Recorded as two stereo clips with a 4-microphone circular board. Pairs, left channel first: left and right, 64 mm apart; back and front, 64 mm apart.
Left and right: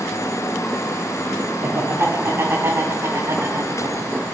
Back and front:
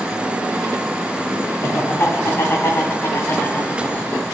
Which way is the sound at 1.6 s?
140° right.